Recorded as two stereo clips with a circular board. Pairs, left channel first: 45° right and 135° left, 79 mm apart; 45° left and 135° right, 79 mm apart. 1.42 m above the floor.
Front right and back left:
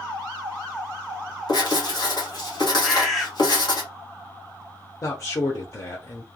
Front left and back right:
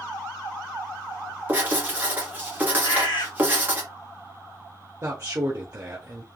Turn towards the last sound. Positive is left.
turn(degrees=-85)